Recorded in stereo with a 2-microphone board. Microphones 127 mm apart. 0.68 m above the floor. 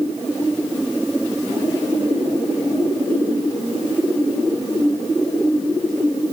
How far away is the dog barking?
No dog barking in this recording.